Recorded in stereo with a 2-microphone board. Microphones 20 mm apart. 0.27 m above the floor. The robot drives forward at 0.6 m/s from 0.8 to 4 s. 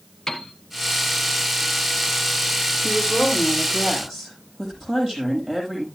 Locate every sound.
0.3 s a piano: 35° left (ahead or behind), 1.5 m
2.8 s a woman speaking: centre (ahead or behind), 7.5 m